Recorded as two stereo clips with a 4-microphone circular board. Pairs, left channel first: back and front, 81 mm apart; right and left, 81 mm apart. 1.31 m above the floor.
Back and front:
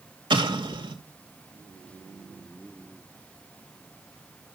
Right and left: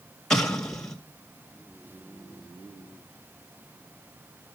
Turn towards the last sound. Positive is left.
turn(degrees=-5)